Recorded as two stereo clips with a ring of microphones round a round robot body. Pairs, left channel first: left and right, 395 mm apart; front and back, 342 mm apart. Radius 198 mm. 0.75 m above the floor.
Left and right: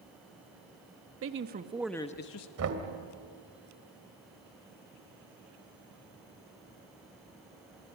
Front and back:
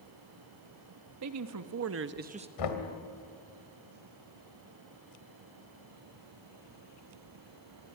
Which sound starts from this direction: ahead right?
Knocking, at 2.6 s.